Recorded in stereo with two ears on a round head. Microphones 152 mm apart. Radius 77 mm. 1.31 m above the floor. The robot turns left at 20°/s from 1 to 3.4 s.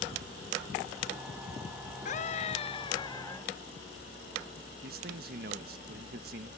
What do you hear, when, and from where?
2.0 s a scream: 45° left (ahead or behind); by 3.5 s 20° left (ahead or behind)
4.8 s a man speaking: 55° right (ahead or behind)